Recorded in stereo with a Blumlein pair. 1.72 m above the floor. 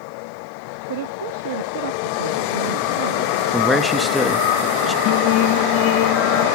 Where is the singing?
40° left, 0.7 m.